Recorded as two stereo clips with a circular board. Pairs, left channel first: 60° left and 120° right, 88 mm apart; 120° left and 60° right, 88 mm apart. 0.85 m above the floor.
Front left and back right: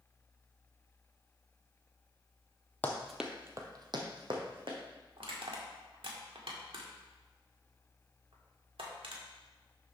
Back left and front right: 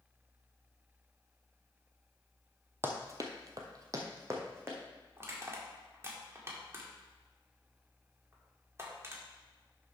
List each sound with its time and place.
2.8 s running footsteps: 5° right, 1.2 m; by 4.8 s 120° right, 2.5 m
5.2 s crushing: 120° right, 1.6 m